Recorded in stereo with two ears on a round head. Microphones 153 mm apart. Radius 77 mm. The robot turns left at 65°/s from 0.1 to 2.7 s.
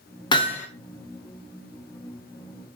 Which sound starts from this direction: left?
Hammering, at 0.3 s.